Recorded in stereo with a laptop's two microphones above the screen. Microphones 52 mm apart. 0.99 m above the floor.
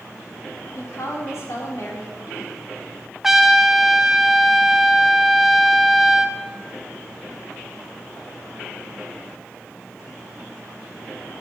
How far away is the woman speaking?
About 3 m.